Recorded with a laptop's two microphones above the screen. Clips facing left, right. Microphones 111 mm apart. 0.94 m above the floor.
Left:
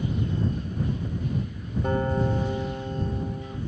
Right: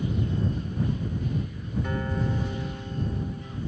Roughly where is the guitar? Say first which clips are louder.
Left 6 dB; left.